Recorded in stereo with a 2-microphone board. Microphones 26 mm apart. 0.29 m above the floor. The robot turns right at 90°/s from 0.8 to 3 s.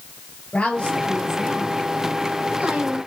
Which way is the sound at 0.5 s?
125° left.